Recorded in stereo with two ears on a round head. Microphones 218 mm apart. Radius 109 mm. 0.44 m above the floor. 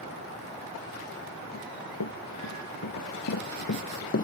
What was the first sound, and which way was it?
Running footsteps, 75° left (ahead or behind).